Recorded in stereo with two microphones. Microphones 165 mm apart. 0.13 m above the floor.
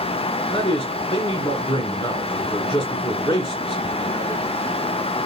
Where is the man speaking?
25° left (ahead or behind), 1.7 m.